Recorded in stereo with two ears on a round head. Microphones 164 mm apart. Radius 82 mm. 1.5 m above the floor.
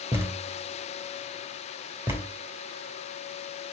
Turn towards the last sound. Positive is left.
turn(degrees=-15)  # may be behind; listen again after turning